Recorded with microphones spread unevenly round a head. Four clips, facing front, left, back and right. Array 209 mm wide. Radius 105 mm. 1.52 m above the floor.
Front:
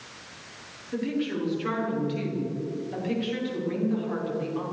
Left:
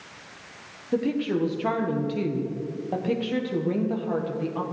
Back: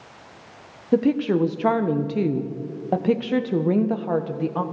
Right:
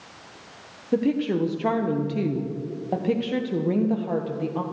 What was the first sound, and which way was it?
A woman speaking, 170° right.